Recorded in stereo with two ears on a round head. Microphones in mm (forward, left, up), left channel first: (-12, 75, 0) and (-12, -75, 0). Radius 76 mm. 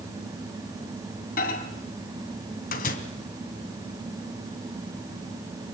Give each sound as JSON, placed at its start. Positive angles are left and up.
{"t": 1.4, "sound": "a microwave", "side_deg": 50, "distance_m": 3.0}